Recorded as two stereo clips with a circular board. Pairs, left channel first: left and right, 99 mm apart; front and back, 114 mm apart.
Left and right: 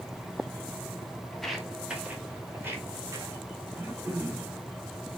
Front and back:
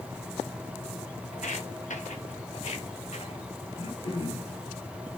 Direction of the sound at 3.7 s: 25° right.